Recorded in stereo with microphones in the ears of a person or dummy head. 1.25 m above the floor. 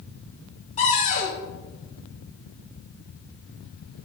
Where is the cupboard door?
40° left (ahead or behind), 5 m.